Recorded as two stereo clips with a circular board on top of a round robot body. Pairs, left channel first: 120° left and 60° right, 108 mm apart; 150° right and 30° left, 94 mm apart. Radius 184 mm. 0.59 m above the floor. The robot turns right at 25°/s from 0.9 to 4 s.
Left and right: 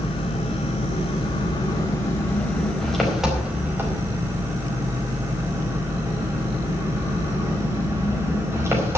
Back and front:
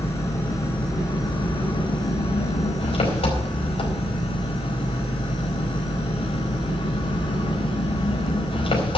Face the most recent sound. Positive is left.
turn(degrees=-125)